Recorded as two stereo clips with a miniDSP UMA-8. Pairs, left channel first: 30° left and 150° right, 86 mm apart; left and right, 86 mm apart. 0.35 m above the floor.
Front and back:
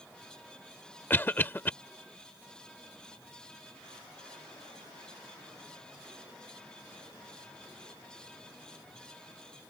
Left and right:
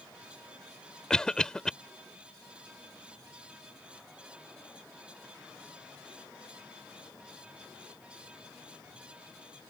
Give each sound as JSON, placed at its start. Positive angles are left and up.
{"t": 1.1, "sound": "a cough", "azimuth_deg": 20}